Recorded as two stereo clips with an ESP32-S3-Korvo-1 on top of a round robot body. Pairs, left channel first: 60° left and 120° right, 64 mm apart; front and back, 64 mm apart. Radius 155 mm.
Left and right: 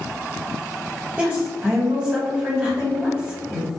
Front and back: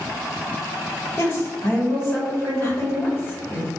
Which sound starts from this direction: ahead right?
A woman speaking, at 1.2 s.